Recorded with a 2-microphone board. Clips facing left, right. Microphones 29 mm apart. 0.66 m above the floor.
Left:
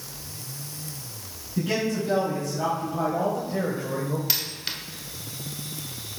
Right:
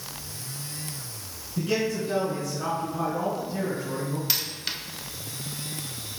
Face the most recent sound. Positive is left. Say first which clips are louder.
# even
turn(degrees=0)  # may be behind; listen again after turning